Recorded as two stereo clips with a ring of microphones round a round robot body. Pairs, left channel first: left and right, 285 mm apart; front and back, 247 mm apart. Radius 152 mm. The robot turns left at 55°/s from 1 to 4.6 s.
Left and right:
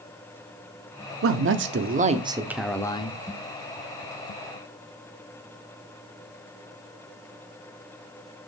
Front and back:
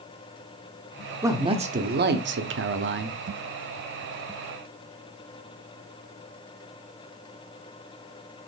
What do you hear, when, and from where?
1.2 s a man speaking: 100° right, 0.9 m; by 3.2 s 150° left, 0.9 m